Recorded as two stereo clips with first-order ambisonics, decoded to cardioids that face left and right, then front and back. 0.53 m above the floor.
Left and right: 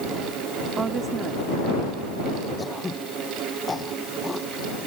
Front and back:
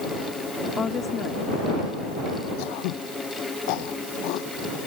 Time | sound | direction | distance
0.8 | a woman speaking | 45° right | ?
2.6 | throat clearing | 10° left | ?